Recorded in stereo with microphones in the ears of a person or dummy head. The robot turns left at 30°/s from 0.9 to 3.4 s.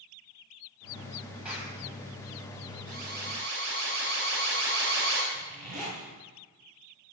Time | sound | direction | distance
1.4 | a clap | 5° right (ahead or behind) | 8 m
2.9 | an alarm | 50° right (ahead or behind) | 4.5 m
5.3 | a zipper | 45° right (ahead or behind) | 7 m